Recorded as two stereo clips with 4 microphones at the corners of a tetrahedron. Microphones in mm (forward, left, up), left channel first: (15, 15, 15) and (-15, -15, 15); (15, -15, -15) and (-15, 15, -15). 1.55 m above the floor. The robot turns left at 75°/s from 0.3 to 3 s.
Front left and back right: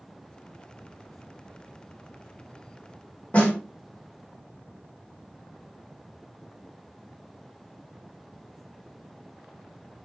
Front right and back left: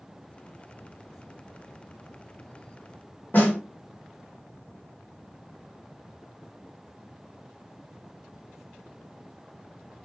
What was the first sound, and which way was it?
A snare drum, 5° right.